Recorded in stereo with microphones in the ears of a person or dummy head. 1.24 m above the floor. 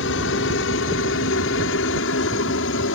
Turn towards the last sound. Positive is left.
turn(degrees=70)  # may be behind; listen again after turning